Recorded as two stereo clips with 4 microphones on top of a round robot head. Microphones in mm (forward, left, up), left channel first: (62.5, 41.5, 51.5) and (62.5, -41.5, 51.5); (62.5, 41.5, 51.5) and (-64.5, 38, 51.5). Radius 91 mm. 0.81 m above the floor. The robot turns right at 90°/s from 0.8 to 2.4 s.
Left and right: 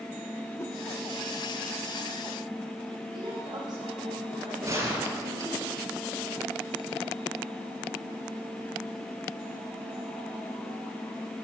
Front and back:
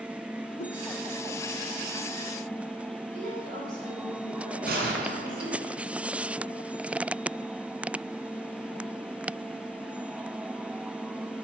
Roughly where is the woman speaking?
Behind right.